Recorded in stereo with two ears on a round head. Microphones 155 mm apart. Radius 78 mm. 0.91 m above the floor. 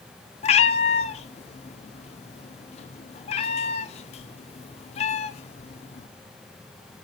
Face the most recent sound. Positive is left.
turn(degrees=35)  # may be behind; listen again after turning